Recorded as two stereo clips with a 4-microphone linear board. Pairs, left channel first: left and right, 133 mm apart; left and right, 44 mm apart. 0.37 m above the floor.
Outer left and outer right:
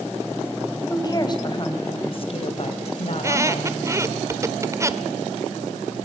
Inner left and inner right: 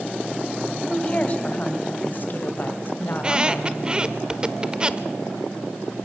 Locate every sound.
0.9 s a woman speaking: 30° left (ahead or behind), 2.5 m; by 3.8 s 60° left (ahead or behind), 2.5 m
3.1 s a squeak: 20° right (ahead or behind), 0.8 m